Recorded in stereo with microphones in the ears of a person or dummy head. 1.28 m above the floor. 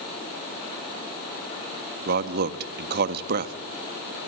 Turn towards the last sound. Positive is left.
turn(degrees=-60)  # may be behind; listen again after turning